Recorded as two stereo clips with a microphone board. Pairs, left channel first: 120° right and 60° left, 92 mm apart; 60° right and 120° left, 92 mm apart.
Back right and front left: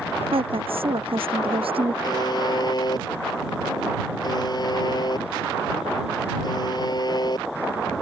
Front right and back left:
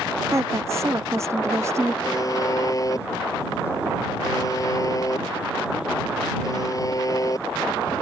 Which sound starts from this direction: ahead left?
A woman speaking, at 0.3 s.